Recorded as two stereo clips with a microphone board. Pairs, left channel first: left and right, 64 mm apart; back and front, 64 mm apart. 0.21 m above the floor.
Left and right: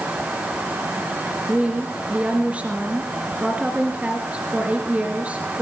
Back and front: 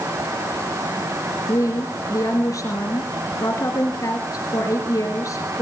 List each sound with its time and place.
1.5 s a woman speaking: 160° right, 3 m